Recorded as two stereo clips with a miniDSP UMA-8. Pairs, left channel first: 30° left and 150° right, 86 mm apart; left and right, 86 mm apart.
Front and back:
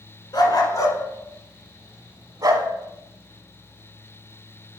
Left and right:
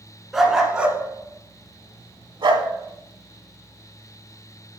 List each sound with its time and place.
0.3 s a dog barking: straight ahead, 1.2 m; by 2.7 s 120° right, 0.9 m